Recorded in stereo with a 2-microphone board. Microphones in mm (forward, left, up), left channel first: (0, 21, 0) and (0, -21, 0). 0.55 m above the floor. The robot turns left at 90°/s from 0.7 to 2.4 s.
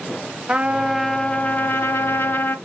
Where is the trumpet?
155° right, 0.6 m; by 2.5 s 55° left, 0.6 m.